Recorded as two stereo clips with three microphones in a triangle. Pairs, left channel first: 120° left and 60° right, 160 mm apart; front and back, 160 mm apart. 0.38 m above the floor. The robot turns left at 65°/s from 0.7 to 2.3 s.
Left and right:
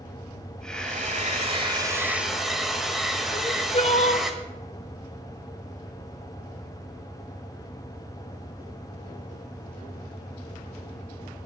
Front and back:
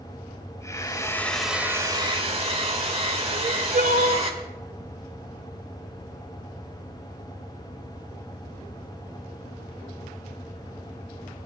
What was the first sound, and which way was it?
A hair dryer, 45° right.